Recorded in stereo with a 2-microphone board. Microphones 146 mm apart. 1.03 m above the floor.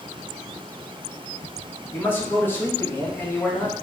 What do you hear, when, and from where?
1.9 s a man speaking: 15° left (ahead or behind), 1.0 m